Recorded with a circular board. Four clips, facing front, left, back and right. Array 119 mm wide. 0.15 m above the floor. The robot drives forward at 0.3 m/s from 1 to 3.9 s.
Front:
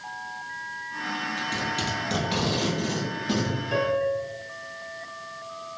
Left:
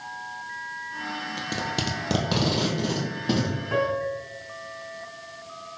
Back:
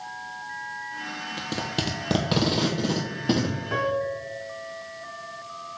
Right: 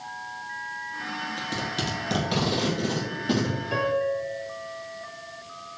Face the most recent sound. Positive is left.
turn(degrees=145)